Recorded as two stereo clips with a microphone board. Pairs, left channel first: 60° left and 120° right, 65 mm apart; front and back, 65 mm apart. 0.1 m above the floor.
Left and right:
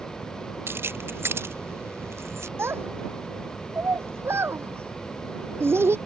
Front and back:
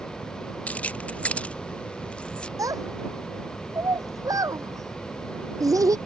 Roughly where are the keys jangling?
Right.